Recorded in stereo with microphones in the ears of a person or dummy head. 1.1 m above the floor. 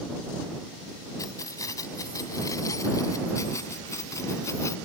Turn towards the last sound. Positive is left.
turn(degrees=15)  # may be behind; listen again after turning